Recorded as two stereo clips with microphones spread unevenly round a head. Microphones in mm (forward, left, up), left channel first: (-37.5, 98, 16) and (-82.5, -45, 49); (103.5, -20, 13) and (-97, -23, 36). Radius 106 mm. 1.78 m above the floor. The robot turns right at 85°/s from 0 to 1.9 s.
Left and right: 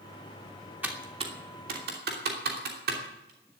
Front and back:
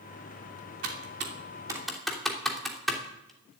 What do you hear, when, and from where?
0.8 s typing on a keyboard: straight behind, 3 m; by 3.6 s 90° right, 3 m